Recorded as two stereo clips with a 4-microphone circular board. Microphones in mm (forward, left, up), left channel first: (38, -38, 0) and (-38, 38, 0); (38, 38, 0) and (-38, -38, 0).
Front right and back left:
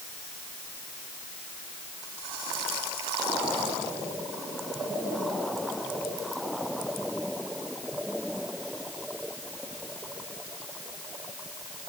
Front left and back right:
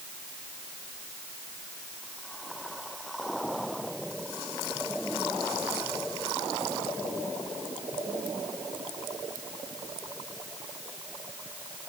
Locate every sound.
Only background noise.